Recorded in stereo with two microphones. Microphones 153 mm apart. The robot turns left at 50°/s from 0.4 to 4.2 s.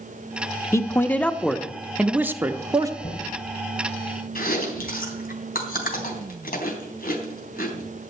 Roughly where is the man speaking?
Centre.